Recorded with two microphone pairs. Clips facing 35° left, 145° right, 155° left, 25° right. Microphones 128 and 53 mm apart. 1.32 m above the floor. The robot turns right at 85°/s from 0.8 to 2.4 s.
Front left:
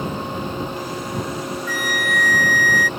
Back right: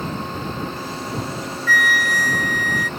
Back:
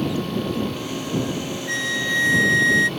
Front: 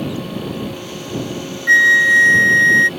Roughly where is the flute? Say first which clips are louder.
Back right 6 dB, front 15 dB; ahead right.